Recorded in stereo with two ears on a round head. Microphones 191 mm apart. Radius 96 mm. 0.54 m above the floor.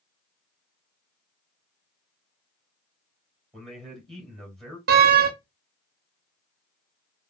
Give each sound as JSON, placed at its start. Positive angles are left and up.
{"t": 3.5, "sound": "a man speaking", "side_deg": 0, "distance_m": 2.0}
{"t": 4.9, "sound": "a door slam", "side_deg": -50, "distance_m": 0.7}